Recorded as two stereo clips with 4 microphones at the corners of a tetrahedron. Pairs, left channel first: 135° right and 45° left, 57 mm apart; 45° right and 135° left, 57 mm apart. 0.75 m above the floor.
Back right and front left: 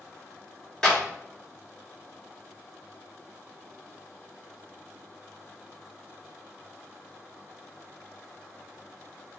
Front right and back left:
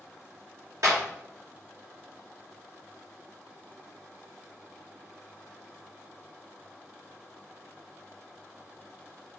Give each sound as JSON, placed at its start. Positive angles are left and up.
{"t": 0.8, "sound": "a clap", "azimuth_deg": 145, "distance_m": 1.9}